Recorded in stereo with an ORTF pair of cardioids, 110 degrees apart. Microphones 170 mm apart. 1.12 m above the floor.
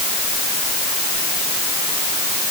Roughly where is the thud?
No thud in this recording.